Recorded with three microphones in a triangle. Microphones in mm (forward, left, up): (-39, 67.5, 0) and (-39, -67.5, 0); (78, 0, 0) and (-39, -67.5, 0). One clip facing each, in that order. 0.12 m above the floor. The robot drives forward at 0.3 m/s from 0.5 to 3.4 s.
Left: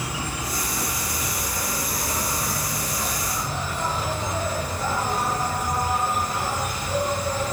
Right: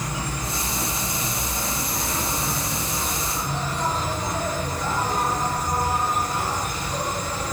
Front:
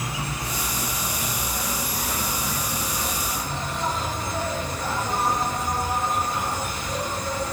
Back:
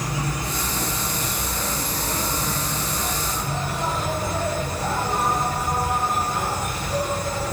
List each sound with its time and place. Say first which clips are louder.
0.0 s an insect: right 1 dB, back 3 dB; 170° left, 5.5 m; by 7.5 s 175° left, 6.5 m